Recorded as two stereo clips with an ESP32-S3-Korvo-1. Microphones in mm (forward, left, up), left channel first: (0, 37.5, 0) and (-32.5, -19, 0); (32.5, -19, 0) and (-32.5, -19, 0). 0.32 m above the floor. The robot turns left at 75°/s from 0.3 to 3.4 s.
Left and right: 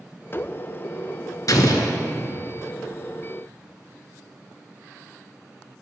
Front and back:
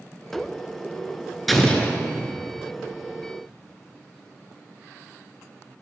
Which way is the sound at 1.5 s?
90° left.